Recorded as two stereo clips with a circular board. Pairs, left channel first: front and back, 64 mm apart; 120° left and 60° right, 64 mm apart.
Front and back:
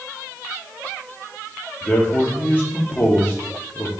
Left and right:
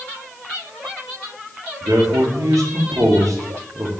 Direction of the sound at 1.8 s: 65° right.